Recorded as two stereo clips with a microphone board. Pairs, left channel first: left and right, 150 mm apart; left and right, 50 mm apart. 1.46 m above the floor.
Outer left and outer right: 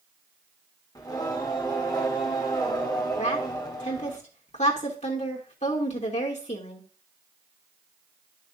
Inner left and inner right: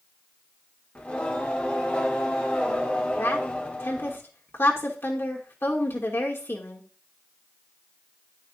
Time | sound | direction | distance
0.9 | singing | 25° left (ahead or behind) | 1.5 m
3.2 | a woman speaking | 55° left (ahead or behind) | 2.5 m